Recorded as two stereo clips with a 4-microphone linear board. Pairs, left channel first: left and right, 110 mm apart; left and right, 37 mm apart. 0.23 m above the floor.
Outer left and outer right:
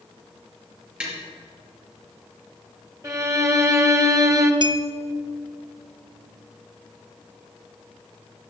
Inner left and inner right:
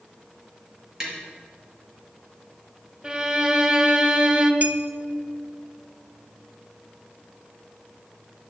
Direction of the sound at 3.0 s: 30° right (ahead or behind).